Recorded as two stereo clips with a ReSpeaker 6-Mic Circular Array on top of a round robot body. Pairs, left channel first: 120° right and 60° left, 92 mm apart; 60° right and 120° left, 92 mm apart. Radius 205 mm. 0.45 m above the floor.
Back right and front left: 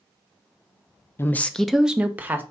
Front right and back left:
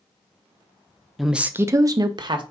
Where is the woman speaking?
150° right, 0.7 m; by 2.4 s 120° left, 1.1 m.